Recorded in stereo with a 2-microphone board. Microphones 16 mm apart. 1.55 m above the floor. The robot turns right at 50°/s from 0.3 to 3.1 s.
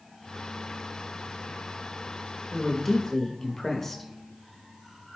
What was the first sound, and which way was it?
A woman speaking, 10° right (ahead or behind).